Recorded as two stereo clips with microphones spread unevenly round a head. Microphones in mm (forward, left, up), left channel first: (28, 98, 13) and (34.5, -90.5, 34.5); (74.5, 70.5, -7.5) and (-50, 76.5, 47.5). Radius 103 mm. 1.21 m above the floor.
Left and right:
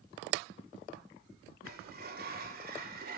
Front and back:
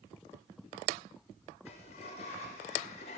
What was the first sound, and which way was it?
A sliding door, 50° right.